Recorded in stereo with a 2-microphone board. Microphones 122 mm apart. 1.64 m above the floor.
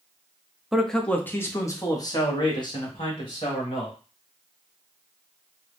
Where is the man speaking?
5° right (ahead or behind), 0.7 m; by 4.0 s 45° left (ahead or behind), 2.0 m.